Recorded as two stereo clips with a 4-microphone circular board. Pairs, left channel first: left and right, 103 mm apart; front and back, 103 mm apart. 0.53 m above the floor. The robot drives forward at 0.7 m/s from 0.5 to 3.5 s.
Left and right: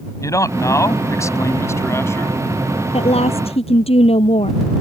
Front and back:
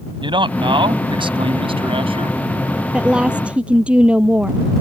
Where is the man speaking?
145° left; by 2.4 s 155° left.